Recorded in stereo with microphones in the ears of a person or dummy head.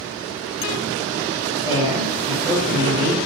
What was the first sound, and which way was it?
A woman speaking, 25° right (ahead or behind).